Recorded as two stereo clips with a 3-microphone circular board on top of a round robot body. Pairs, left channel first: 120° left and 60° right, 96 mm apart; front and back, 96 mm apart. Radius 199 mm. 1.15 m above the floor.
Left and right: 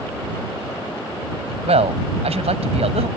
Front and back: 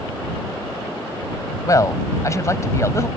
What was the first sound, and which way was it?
A man speaking, 55° right.